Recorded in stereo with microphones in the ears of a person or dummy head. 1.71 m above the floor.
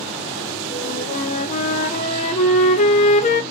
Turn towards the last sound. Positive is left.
turn(degrees=40)  # may be behind; listen again after turning